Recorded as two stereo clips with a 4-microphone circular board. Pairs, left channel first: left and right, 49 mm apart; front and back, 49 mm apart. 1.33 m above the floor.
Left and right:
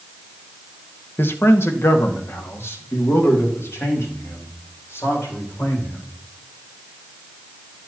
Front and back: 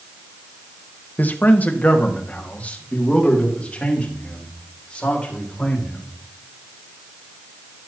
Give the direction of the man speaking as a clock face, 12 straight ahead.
10 o'clock.